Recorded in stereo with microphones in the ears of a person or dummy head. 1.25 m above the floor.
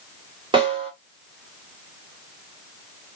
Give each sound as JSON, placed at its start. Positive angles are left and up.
{"t": 0.5, "sound": "a snare drum", "side_deg": -25, "distance_m": 2.5}